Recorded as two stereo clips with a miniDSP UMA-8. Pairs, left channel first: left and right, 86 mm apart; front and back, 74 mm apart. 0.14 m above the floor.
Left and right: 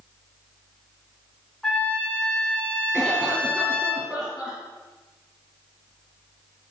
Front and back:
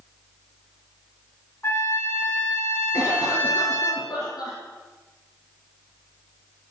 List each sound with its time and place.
1.6 s a trumpet: 15° left, 1.7 m
2.9 s a cough: 5° right, 3 m